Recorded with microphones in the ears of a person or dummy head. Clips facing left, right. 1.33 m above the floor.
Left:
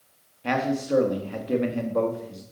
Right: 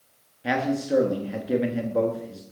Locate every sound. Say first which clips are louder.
0.4 s a man speaking: even; centre (ahead or behind), 1.9 m